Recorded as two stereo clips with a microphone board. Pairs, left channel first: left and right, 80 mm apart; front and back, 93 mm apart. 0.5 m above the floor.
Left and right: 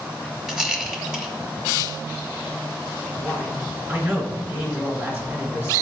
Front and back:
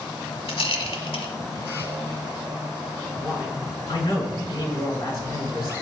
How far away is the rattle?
About 1.1 m.